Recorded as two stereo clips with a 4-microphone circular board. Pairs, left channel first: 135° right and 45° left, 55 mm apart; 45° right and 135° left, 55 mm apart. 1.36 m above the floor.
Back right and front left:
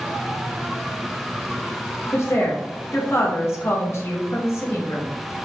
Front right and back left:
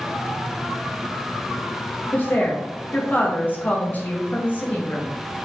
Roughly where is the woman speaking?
Right.